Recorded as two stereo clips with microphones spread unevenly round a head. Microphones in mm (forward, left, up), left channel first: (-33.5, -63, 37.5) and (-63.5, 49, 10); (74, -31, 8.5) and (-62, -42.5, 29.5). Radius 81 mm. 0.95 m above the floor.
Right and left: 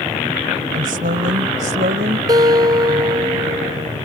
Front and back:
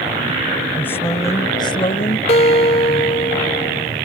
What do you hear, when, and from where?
0.7 s a woman speaking: 85° left; by 2.2 s 60° left
2.3 s a guitar: 50° left